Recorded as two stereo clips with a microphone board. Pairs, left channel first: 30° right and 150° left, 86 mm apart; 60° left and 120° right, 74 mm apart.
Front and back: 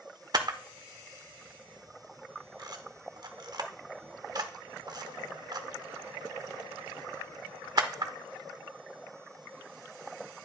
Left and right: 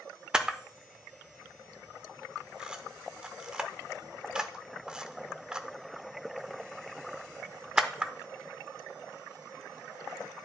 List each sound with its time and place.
0.3 s a camera shutter: 165° left, 0.6 m